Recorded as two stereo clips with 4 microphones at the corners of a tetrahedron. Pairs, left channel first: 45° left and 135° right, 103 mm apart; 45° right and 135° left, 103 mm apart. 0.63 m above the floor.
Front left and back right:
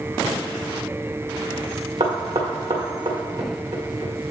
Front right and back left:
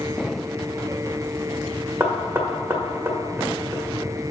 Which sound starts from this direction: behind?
Knocking, at 2.0 s.